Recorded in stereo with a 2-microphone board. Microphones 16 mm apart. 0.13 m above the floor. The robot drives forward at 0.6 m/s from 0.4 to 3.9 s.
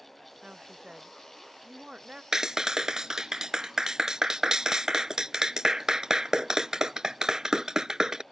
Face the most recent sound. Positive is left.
turn(degrees=-45)  # may be behind; listen again after turning